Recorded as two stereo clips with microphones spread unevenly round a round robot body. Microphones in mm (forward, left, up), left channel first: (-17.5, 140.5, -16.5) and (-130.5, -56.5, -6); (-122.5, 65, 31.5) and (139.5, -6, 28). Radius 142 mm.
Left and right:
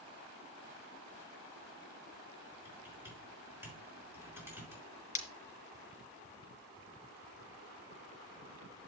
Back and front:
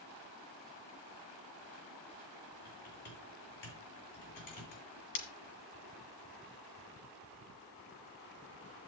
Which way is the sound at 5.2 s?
115° left.